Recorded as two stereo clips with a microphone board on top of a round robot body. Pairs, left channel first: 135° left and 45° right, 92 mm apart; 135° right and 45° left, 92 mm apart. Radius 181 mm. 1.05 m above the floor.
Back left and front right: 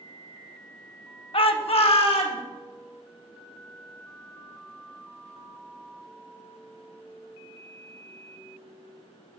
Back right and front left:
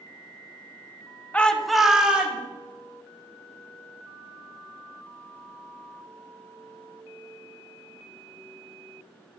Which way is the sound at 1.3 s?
150° left.